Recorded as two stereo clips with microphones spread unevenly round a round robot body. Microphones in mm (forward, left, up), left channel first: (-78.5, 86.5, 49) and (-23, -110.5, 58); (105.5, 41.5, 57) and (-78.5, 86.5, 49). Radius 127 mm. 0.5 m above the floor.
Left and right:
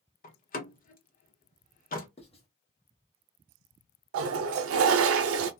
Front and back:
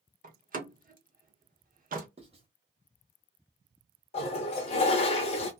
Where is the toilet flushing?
75° right, 0.5 m.